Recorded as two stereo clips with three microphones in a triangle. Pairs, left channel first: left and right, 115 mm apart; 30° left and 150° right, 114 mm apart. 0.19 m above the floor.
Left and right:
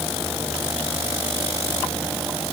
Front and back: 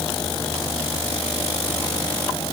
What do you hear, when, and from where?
Only background noise.